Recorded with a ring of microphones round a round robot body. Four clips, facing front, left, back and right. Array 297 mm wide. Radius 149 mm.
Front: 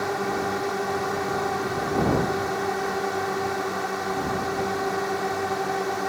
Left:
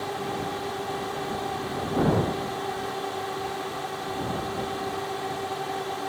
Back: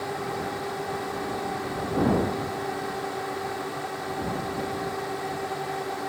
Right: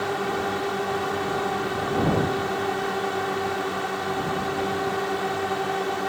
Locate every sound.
0.0 s a drone: 50° right